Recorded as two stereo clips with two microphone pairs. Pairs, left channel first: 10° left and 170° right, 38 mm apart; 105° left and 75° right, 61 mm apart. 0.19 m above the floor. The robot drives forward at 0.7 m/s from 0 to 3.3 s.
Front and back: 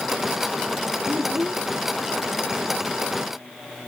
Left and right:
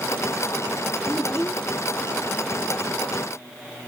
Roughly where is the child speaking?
Behind.